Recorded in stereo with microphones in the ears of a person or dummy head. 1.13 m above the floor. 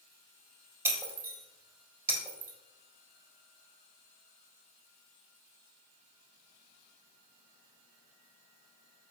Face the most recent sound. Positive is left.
turn(degrees=-15)  # may be behind; listen again after turning